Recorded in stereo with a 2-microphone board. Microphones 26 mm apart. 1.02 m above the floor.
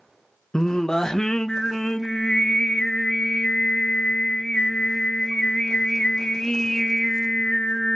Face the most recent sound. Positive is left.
turn(degrees=20)  # may be behind; listen again after turning